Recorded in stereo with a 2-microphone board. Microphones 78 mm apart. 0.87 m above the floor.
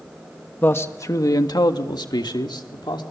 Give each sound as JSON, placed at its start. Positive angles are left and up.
{"t": 0.6, "sound": "a man speaking", "side_deg": 25, "distance_m": 1.4}